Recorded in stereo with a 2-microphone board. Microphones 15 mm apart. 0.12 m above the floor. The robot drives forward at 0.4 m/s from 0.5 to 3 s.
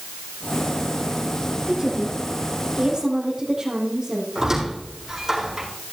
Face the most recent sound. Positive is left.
turn(degrees=-45)  # may be behind; listen again after turning